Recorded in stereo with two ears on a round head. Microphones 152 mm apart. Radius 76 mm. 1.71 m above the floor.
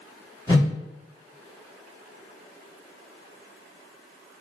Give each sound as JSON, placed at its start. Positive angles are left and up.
{"t": 0.5, "sound": "a whoosh", "side_deg": 25, "distance_m": 1.2}